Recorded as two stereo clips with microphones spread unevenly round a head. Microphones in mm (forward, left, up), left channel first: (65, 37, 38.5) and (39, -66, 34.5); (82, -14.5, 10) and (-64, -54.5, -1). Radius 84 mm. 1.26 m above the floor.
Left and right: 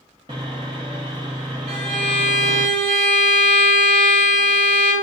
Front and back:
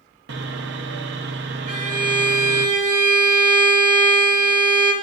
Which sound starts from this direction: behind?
Sawing, at 0.3 s.